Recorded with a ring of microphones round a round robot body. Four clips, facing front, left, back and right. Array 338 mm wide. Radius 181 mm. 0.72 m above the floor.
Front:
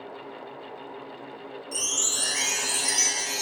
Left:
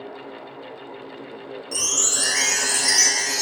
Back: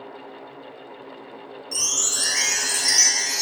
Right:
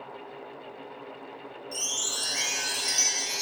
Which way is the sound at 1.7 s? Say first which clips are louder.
Left 9 dB, back 3 dB; 110° left.